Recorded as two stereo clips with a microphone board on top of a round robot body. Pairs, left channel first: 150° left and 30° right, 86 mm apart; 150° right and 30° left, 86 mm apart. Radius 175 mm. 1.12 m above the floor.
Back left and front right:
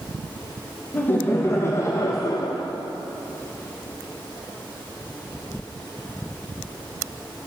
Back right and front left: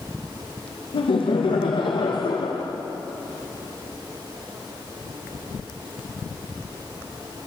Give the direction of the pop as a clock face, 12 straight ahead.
No pop in this recording.